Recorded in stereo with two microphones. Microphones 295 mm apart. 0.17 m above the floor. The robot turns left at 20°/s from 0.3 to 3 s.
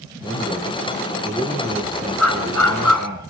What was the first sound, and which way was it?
A man speaking, 15° left.